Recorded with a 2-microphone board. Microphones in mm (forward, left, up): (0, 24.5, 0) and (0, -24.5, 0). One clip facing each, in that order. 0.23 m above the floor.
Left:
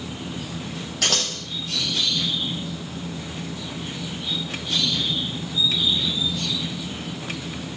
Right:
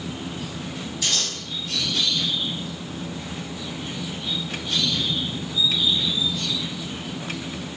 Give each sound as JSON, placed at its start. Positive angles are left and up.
{"t": 1.0, "sound": "scissors", "side_deg": 70, "distance_m": 4.0}